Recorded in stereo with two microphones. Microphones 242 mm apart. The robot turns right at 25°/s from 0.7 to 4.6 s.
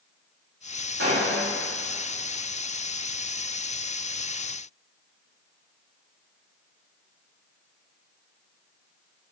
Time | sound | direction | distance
1.0 | a gunshot | 65° right (ahead or behind) | 2.5 m